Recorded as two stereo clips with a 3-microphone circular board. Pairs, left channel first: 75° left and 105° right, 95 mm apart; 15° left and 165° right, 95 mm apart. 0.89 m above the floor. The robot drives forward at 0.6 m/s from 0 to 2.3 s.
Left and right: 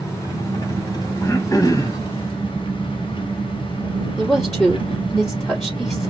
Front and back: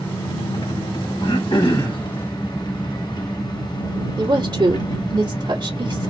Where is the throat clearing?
25° left, 2 m; by 2.0 s 30° left, 1.7 m.